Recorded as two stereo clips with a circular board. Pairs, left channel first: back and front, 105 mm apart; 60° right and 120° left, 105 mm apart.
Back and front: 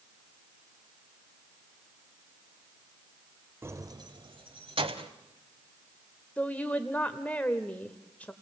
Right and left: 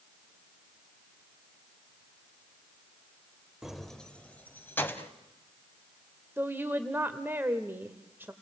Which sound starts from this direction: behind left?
A woman speaking, at 6.4 s.